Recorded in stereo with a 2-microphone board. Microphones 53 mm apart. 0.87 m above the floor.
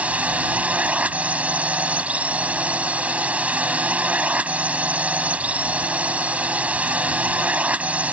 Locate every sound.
0.0 s a drone: 25° right (ahead or behind)